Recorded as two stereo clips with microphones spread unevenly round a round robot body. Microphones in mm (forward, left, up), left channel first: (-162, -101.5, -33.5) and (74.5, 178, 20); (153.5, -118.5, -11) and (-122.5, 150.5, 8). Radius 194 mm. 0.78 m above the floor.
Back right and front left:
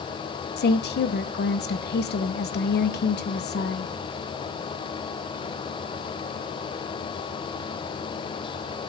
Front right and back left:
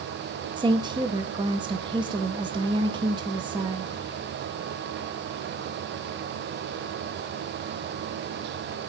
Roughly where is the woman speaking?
Behind right.